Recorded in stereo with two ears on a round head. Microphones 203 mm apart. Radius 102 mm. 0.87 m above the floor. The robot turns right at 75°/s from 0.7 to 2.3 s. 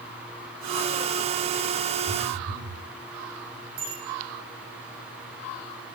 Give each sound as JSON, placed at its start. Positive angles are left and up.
{"t": 2.1, "sound": "a phone buzzing", "side_deg": -75, "distance_m": 5.5}
{"t": 3.8, "sound": "a bicycle bell", "side_deg": -45, "distance_m": 9.5}